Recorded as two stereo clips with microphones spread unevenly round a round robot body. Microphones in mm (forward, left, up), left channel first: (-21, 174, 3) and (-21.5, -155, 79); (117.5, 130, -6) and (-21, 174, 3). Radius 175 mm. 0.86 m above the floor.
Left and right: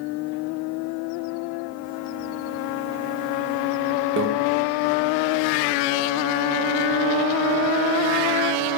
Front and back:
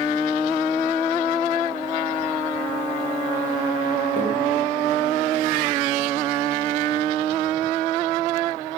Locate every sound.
4.2 s a microwave: 150° right, 1.2 m